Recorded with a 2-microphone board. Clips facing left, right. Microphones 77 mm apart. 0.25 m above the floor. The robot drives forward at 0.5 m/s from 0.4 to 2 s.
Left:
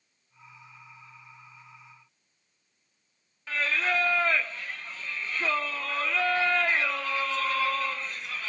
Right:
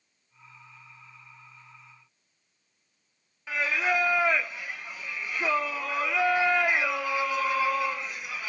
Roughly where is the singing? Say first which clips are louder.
Right 1 dB; centre.